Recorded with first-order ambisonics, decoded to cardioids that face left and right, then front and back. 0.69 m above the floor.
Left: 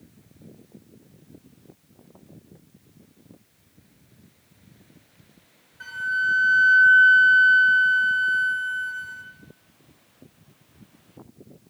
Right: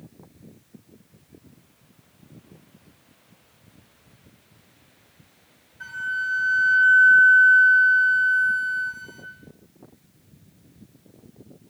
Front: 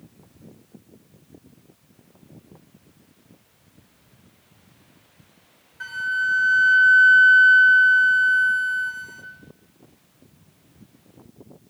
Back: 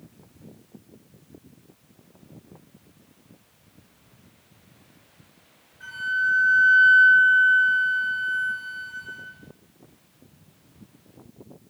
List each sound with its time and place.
5.8 s a flute: 15° left, 2.5 m